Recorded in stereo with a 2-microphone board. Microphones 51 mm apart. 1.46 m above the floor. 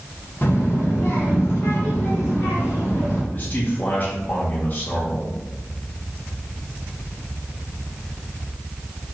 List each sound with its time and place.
0.4 s a child speaking: 40° left (ahead or behind), 0.6 m; by 3.2 s 45° left (ahead or behind), 1.9 m
3.3 s a man speaking: 35° left (ahead or behind), 0.6 m